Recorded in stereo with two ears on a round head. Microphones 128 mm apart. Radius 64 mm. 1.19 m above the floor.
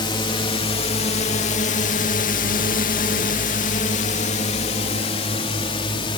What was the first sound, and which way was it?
A drone, 35° left (ahead or behind).